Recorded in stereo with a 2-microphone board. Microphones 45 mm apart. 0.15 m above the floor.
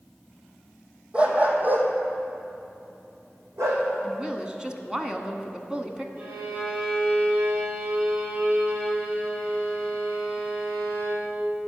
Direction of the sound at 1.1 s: 25° right (ahead or behind).